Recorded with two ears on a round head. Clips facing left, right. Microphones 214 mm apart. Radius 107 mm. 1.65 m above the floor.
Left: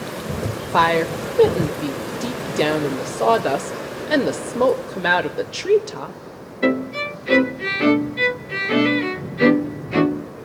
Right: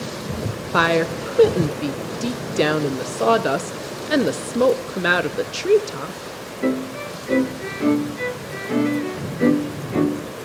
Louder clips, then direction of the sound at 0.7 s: Even; 10° right (ahead or behind).